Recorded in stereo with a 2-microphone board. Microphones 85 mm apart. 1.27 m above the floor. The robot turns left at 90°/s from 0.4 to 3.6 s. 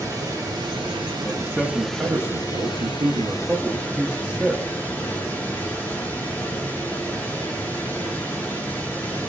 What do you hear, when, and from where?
0.0 s running water: 50° right, 2 m; by 9.3 s 25° left, 2 m
1.2 s a man speaking: 30° left, 0.7 m; by 4.6 s straight behind, 0.7 m